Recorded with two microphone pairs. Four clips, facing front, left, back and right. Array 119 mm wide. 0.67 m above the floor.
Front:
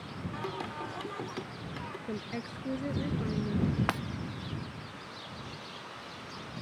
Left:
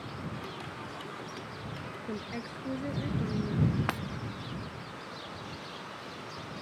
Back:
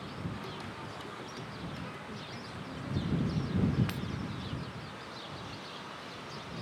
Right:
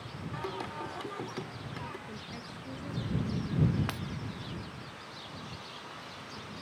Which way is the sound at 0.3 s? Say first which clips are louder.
Right 3 dB, front 5 dB; 40° right.